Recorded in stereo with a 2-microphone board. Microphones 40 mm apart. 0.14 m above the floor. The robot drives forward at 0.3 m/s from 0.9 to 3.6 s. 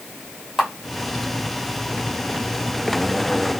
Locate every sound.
0.6 s a camera shutter: 5° right (ahead or behind), 1.7 m